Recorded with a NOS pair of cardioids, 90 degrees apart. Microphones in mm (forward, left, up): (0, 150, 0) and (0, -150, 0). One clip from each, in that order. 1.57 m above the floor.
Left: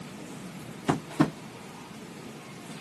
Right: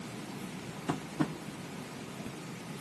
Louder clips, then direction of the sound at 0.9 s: Left 8 dB; 40° left.